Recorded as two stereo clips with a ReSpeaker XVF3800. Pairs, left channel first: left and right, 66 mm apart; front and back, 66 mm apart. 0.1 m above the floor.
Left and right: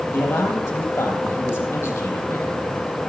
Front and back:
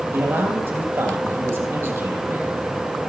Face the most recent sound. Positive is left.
turn(degrees=140)